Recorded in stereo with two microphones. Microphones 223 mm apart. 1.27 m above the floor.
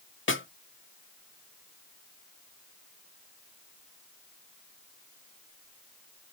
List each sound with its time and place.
0.3 s a snare drum: 60° left (ahead or behind), 0.6 m